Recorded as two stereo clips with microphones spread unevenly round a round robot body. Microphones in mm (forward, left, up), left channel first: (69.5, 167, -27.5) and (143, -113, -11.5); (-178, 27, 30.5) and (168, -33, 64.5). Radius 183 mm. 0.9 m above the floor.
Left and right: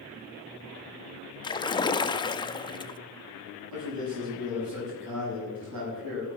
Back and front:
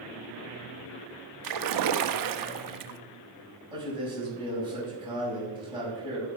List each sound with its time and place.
1.4 s a splash: 30° left, 0.8 m
3.7 s a man speaking: 85° right, 6.5 m